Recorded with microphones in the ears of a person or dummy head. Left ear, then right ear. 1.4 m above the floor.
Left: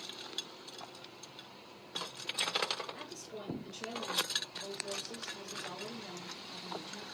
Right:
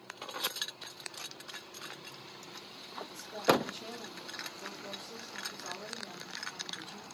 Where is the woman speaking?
30° right (ahead or behind), 1.8 m.